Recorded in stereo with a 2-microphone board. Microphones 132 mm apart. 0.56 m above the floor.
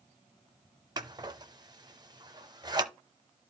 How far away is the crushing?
I don't hear crushing.